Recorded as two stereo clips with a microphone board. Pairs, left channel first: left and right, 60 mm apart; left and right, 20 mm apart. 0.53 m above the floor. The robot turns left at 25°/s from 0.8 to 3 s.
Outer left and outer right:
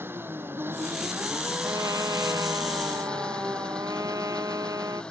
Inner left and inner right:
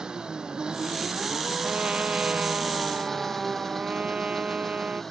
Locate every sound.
0.0 s an engine running: 140° right; by 5.1 s 165° left
1.6 s a trumpet: 70° right; by 5.0 s 100° right